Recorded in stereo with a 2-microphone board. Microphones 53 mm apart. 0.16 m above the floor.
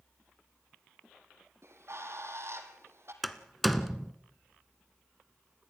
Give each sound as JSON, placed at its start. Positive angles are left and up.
{"t": 1.6, "sound": "a bird", "side_deg": -60, "distance_m": 3.0}
{"t": 3.2, "sound": "a door slam", "side_deg": 0, "distance_m": 1.3}